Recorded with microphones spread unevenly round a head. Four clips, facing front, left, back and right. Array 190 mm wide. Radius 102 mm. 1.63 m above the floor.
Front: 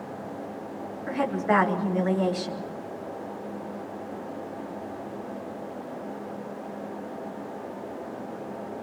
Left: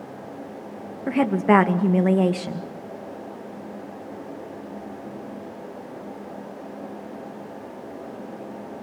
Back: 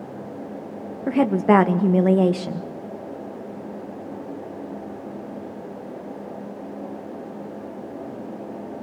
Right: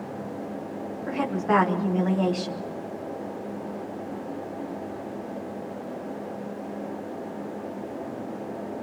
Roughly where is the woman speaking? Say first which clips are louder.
Left 6 dB, back 8 dB; behind left.